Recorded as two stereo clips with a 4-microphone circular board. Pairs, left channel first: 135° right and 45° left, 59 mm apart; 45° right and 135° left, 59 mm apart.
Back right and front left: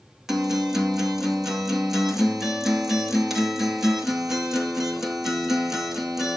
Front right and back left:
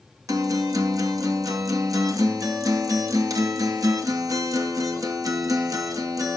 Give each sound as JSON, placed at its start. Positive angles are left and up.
{"t": 0.3, "sound": "a guitar", "azimuth_deg": 130, "distance_m": 2.0}